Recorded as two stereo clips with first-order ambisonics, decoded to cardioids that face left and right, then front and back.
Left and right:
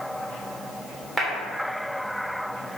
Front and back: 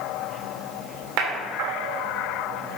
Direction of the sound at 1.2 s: 175° right.